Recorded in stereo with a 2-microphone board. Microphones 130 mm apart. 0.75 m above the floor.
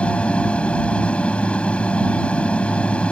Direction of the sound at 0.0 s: 10° left (ahead or behind).